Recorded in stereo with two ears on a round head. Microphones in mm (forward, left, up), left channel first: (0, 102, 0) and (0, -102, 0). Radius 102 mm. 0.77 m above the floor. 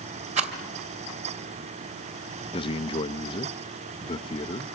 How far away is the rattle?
About 2.5 m.